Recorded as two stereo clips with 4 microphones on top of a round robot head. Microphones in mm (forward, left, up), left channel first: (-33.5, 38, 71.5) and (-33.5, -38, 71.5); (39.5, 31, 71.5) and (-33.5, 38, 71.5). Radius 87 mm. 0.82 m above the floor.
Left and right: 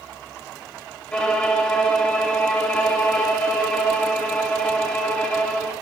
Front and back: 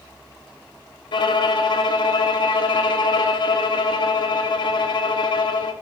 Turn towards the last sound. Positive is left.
turn(degrees=10)